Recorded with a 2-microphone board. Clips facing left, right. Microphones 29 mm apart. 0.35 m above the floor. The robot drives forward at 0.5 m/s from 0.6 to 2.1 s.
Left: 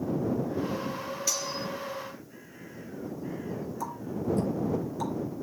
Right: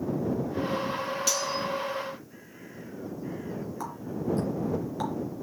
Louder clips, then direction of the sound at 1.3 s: Right 3 dB; 75° right (ahead or behind).